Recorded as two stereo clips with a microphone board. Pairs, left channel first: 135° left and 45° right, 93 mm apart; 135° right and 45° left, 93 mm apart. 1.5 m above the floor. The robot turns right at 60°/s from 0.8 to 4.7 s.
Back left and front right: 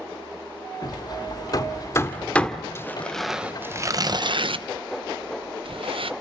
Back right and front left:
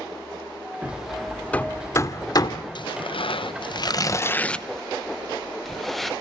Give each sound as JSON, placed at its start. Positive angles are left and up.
{"t": 0.8, "sound": "hammering", "azimuth_deg": 115, "distance_m": 1.4}
{"t": 2.8, "sound": "tearing paper", "azimuth_deg": -165, "distance_m": 0.9}